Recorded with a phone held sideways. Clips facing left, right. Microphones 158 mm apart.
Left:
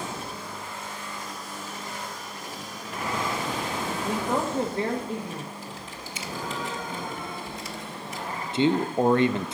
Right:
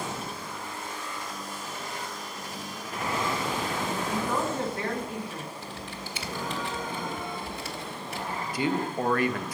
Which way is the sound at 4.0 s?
35° left (ahead or behind).